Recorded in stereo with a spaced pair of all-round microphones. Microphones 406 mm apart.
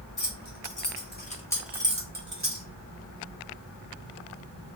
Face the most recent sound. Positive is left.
turn(degrees=-40)  # may be behind; listen again after turning